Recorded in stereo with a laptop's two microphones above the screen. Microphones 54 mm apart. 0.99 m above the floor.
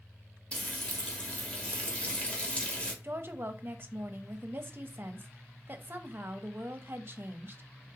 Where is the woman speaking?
40° right (ahead or behind), 0.8 m.